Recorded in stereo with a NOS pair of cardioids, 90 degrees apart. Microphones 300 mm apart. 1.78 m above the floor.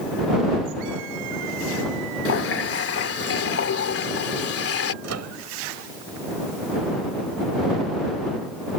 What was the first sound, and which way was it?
A running tap, 50° left.